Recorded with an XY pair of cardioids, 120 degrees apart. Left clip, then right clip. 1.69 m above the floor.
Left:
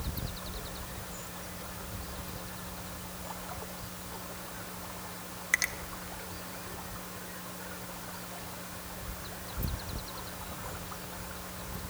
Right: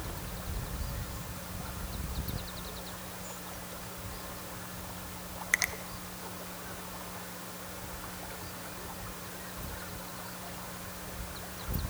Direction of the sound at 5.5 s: 5° right.